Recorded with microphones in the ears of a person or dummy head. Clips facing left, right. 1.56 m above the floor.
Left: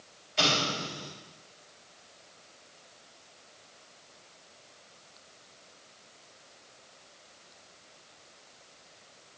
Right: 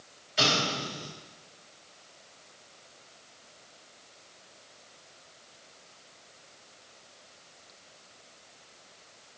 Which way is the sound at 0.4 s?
Centre (ahead or behind).